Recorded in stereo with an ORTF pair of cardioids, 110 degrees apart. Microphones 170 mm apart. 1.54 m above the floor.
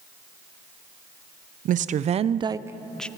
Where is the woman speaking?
55° right, 1.0 m; by 3.1 s 10° left, 0.6 m.